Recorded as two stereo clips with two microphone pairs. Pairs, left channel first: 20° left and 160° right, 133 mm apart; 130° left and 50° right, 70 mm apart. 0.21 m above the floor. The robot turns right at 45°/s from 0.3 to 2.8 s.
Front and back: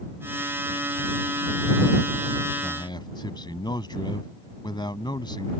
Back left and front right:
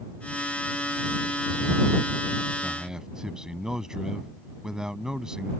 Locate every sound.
2.6 s a man speaking: 20° left; by 5.5 s 25° left